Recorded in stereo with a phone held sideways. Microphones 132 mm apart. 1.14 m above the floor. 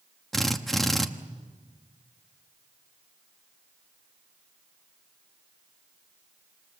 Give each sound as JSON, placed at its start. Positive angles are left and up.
{"t": 0.3, "sound": "a drill", "side_deg": 0, "distance_m": 1.1}